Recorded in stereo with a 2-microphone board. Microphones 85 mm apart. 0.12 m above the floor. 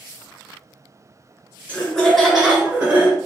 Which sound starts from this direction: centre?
Laughter, at 1.7 s.